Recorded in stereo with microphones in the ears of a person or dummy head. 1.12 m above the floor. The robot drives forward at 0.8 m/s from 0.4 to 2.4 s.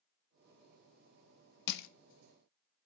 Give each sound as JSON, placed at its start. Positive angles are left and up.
{"t": 1.7, "sound": "crushing", "side_deg": 60, "distance_m": 0.6}